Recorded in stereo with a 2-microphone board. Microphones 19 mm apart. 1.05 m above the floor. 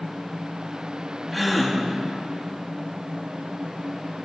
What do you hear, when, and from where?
1.3 s a gasp: centre (ahead or behind), 2 m